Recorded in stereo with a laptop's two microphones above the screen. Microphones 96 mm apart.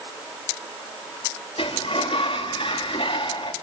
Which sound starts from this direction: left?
A sliding door, at 1.6 s.